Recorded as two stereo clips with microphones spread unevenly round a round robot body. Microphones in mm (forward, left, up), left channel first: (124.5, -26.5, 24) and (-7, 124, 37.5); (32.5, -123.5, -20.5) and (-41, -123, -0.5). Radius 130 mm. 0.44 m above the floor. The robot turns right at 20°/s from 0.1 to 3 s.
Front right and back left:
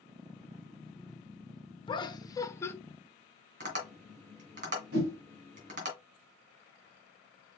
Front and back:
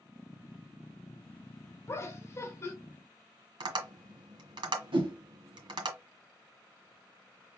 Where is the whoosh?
Straight behind, 1.6 m.